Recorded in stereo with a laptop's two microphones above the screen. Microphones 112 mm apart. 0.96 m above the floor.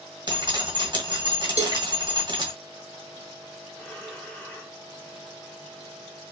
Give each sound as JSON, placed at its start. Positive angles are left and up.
{"t": 0.3, "sound": "dripping", "side_deg": -35, "distance_m": 1.8}
{"t": 1.6, "sound": "a cowbell", "side_deg": -75, "distance_m": 0.7}
{"t": 3.8, "sound": "breathing", "side_deg": 10, "distance_m": 1.5}